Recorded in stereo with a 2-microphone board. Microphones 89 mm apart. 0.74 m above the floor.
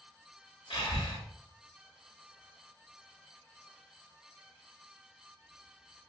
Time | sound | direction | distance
0.7 | breathing | 70° left (ahead or behind) | 1.2 m